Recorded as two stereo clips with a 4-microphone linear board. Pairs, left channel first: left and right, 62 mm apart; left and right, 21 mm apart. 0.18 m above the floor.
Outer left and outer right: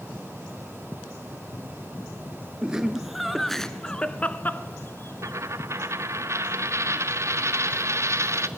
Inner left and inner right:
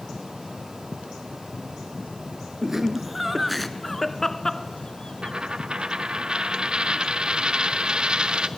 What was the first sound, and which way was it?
Laughter, 15° right (ahead or behind).